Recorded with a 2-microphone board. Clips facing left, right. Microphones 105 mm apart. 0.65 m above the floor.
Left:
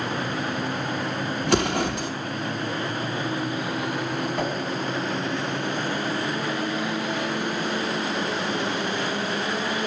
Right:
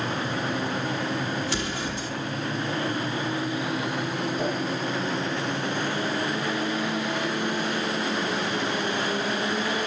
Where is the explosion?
65° left (ahead or behind), 0.8 m.